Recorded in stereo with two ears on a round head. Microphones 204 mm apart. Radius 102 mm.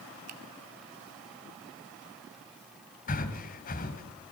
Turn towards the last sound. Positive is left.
turn(degrees=40)  # may be behind; listen again after turning